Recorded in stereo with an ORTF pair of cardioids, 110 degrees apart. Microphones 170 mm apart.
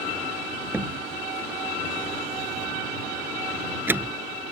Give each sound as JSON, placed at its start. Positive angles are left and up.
{"t": 0.7, "sound": "a door slam", "azimuth_deg": -10}